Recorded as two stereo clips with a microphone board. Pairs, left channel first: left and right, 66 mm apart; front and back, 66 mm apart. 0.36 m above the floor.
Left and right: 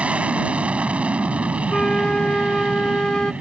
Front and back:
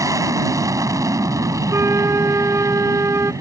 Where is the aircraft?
160° right.